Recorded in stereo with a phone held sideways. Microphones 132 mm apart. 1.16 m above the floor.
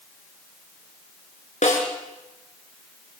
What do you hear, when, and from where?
1.6 s a snare drum: 65° left (ahead or behind), 5.5 m